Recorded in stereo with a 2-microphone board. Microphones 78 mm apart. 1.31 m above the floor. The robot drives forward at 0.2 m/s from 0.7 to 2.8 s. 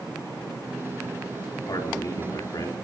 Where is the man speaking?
60° left (ahead or behind), 3.5 m.